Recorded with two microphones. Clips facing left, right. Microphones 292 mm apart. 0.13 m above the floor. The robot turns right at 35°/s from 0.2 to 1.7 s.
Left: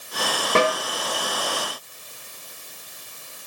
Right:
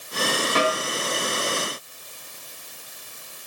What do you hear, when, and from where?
0.6 s a snare drum: 55° left (ahead or behind), 8.5 m; by 0.8 s 65° left (ahead or behind), 8.5 m